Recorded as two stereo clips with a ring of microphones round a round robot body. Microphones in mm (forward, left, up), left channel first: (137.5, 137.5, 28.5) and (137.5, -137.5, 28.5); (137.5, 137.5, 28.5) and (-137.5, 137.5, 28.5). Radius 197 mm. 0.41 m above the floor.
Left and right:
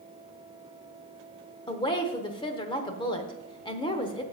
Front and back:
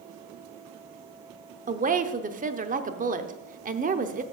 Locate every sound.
1.7 s a woman speaking: 150° left, 0.8 m